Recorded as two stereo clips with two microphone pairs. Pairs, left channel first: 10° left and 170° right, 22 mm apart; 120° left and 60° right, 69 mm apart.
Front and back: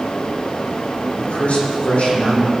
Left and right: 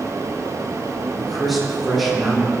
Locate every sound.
1.2 s a man speaking: 25° left, 6 m